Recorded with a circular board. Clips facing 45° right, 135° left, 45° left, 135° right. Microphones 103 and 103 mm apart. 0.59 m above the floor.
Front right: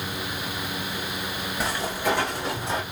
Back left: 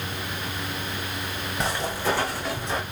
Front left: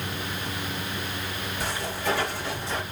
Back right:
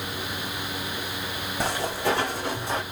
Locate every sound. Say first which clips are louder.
1.6 s footsteps: even, back right 4 dB; 135° right, 2 m; by 2.8 s 95° right, 2 m